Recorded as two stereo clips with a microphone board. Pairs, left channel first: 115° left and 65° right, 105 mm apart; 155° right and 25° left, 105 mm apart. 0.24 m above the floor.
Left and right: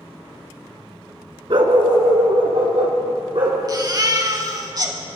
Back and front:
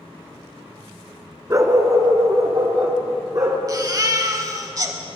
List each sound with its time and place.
1.5 s a dog barking: 35° right, 0.6 m; by 3.6 s 30° right, 2.5 m
3.7 s a baby crying: 25° right, 0.7 m